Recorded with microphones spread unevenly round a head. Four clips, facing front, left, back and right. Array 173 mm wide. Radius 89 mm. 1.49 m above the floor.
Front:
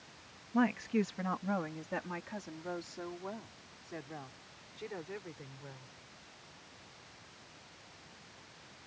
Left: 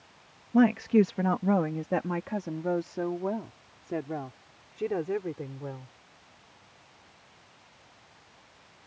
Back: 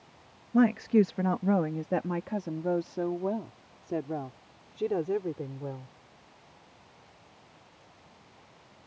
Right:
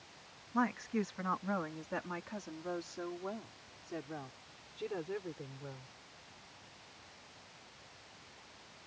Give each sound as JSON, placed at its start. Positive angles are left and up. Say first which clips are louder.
{"t": 0.5, "sound": "a woman speaking", "louder": "left 13 dB, back 8 dB", "azimuth_deg": 120}